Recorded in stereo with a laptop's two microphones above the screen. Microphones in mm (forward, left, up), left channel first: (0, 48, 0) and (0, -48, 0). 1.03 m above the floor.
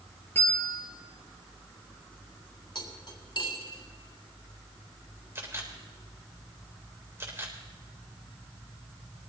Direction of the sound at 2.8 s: 50° left (ahead or behind).